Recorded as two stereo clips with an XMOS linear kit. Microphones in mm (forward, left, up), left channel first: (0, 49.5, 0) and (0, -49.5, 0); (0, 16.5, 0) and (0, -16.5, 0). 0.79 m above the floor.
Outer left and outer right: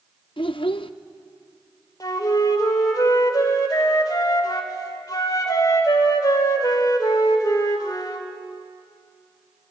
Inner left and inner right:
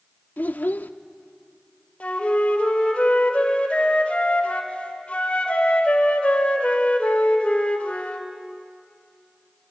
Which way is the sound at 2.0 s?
40° left (ahead or behind).